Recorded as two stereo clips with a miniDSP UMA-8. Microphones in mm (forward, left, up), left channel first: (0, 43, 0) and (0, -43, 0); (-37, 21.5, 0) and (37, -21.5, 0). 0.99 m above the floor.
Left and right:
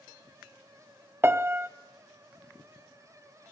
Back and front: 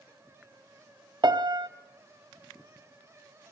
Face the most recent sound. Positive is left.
turn(degrees=-35)